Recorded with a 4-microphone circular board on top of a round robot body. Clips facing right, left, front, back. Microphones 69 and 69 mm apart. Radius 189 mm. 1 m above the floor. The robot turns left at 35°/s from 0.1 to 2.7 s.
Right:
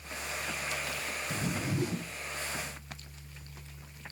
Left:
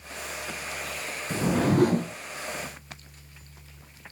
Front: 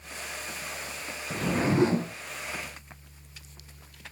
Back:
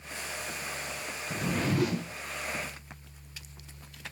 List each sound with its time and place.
1.3 s a whoosh: 80° left; by 2.2 s 50° left